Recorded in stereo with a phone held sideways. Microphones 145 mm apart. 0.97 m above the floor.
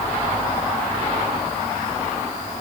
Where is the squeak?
No squeak in this recording.